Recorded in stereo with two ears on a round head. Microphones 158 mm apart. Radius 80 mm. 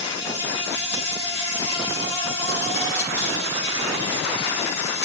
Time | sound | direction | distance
0.0 | an insect | 65° left (ahead or behind) | 4.5 m